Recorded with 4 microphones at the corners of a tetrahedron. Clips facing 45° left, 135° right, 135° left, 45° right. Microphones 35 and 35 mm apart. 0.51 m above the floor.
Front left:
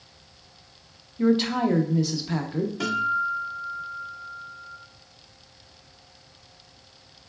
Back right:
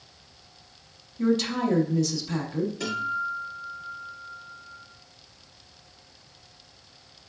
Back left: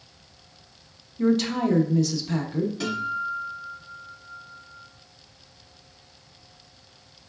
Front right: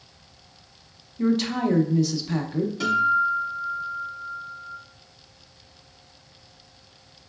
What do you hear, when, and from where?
1.2 s a woman speaking: 25° left, 0.7 m
2.8 s a guitar: 45° left, 1.7 m